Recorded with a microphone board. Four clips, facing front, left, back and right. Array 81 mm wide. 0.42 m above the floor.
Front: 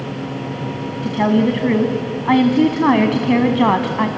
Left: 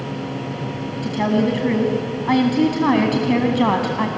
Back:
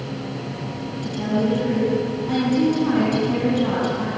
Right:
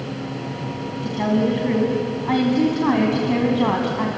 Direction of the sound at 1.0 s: 15° left.